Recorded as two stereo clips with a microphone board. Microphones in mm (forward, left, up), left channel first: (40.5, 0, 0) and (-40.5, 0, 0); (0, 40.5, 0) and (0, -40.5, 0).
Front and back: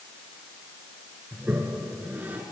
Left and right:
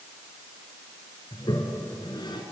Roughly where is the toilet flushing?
Behind left.